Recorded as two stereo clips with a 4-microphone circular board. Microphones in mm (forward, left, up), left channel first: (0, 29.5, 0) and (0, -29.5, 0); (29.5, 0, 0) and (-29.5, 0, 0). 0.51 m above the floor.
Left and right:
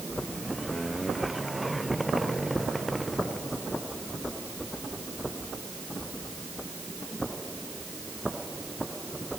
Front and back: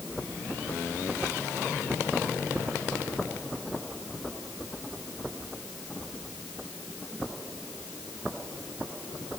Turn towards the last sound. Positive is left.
No sound to turn to.